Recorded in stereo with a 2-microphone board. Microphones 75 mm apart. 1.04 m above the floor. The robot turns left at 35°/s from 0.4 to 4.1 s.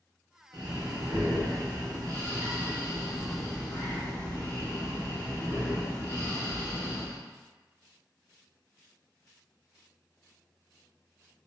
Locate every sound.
0.5 s breathing: 80° right, 1.2 m; by 7.2 s 155° left, 1.2 m